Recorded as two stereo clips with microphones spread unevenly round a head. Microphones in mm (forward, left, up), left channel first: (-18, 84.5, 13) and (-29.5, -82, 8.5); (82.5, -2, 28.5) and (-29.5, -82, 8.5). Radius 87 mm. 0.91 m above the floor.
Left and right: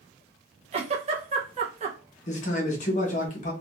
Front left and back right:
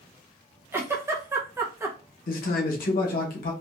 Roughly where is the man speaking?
Ahead left.